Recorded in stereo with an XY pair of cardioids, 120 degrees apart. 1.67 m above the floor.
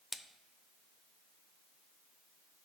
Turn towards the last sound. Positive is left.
turn(degrees=10)